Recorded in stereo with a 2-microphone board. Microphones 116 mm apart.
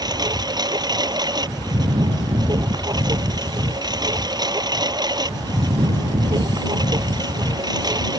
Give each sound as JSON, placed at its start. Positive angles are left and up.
{"t": 0.0, "sound": "a lawn mower", "side_deg": -35}